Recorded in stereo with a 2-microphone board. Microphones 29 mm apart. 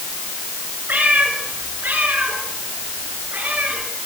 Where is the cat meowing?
80° right, 8.5 m; by 3.8 s 70° right (ahead or behind), 10 m.